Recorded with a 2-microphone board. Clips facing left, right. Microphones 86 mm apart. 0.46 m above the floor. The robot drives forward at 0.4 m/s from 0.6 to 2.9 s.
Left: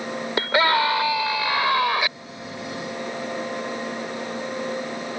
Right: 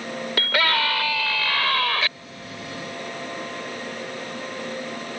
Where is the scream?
25° left (ahead or behind); by 2.1 s 20° left (ahead or behind).